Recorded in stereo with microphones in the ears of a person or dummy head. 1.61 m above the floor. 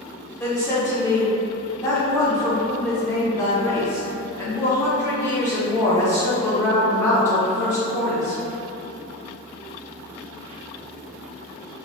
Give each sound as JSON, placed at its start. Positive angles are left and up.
{"t": 0.4, "sound": "a woman speaking", "side_deg": 20, "distance_m": 0.6}